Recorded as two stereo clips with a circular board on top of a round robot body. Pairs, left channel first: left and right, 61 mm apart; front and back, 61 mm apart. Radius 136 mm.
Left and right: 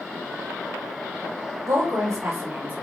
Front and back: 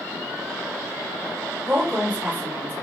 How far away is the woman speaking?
About 2.5 m.